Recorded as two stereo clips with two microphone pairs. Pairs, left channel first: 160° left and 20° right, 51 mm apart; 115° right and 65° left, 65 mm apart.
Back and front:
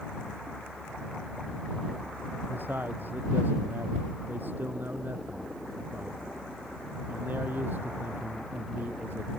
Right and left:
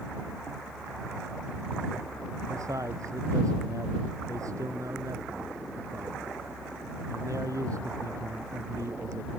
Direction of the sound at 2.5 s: 30° left.